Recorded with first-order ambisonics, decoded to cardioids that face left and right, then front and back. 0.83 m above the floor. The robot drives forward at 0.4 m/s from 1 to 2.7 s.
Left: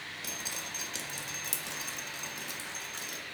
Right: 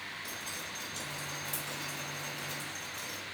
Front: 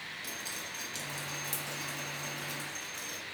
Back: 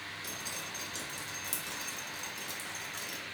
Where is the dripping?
90° left, 0.8 m; by 3.2 s 130° left, 1.0 m.